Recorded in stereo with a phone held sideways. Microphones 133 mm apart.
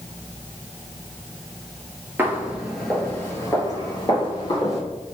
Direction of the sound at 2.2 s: 20° right (ahead or behind).